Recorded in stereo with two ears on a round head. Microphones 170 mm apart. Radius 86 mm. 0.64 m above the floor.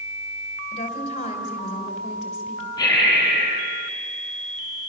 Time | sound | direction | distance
0.7 | a woman speaking | 35° left (ahead or behind) | 3 m
2.8 | breathing | 20° left (ahead or behind) | 4.5 m